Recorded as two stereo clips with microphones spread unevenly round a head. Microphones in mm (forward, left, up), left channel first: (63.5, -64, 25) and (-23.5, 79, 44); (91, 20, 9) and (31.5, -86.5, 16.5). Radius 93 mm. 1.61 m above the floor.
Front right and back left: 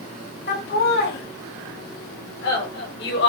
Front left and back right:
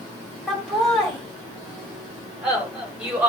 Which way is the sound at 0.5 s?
25° right.